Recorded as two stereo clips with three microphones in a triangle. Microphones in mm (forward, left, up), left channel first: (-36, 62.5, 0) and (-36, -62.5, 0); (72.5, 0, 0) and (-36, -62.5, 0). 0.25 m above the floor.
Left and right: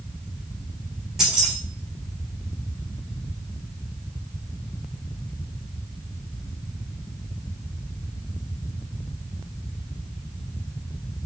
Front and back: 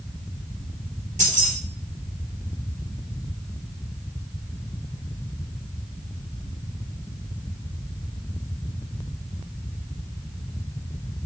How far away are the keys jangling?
About 3 m.